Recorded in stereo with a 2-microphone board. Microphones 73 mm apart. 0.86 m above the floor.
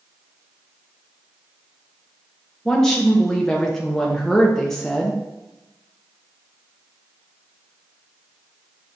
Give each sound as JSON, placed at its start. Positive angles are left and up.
{"t": 2.6, "sound": "a woman speaking", "side_deg": 10, "distance_m": 0.6}